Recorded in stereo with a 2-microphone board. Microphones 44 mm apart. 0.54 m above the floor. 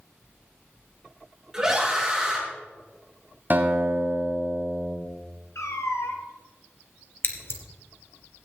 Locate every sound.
1.5 s a scream: 15° right (ahead or behind), 6 m
3.5 s a guitar: 40° right (ahead or behind), 3.5 m
5.5 s a cat meowing: 80° left, 2 m
7.2 s scissors: 55° left (ahead or behind), 1.7 m